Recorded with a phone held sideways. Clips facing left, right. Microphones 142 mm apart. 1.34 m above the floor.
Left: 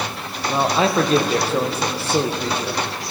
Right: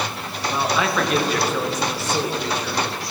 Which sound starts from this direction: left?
A man speaking, at 0.5 s.